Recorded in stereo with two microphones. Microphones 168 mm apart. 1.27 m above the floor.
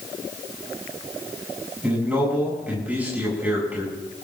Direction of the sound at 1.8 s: 10° right (ahead or behind).